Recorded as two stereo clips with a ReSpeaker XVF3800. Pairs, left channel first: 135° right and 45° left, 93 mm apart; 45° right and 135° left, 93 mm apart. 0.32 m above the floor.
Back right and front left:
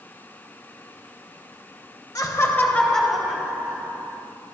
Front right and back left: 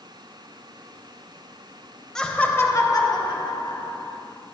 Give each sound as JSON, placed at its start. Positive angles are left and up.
{"t": 2.1, "sound": "laughter", "azimuth_deg": -125, "distance_m": 1.6}